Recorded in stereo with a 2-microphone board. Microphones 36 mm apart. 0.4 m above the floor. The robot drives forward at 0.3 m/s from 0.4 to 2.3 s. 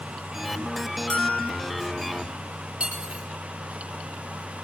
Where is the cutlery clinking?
25° right (ahead or behind), 7.5 m.